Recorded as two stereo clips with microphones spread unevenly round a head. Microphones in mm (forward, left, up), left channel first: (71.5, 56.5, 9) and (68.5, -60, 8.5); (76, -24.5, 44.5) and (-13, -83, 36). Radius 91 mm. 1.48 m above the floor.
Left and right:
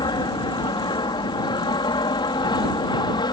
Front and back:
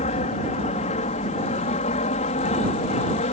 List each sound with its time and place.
0.0 s an aircraft: 40° left